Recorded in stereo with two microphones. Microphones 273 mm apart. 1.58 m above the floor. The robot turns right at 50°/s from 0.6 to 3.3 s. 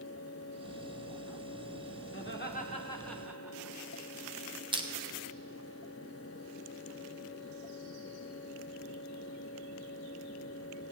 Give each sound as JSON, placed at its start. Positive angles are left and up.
{"t": 2.1, "sound": "laughter", "side_deg": 50, "distance_m": 1.2}
{"t": 4.7, "sound": "crushing", "side_deg": -20, "distance_m": 0.8}